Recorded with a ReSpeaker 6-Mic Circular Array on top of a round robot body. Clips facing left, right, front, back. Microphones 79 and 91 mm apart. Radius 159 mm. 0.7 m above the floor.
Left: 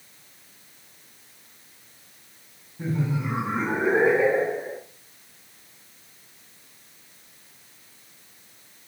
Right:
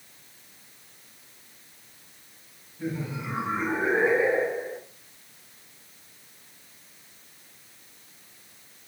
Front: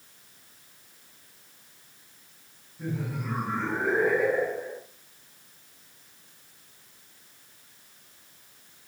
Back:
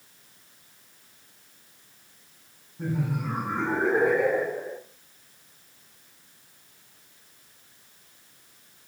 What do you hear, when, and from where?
2.8 s laughter: 145° left, 3.5 m; by 4.8 s straight behind, 3 m